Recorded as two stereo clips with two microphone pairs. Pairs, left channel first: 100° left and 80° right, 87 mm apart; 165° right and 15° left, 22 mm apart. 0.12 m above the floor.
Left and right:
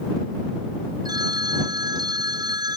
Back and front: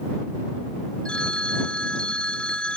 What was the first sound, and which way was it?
A phone ringing, 125° right.